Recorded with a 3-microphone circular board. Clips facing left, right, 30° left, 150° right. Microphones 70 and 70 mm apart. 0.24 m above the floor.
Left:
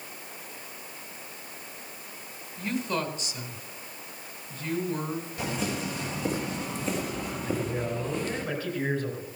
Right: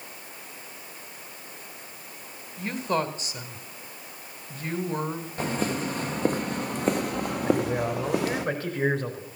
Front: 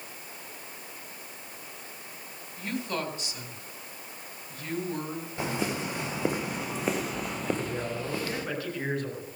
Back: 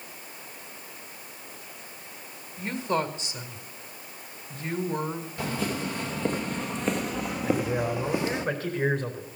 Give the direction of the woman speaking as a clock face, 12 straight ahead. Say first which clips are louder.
Right 3 dB, back 5 dB; 3 o'clock.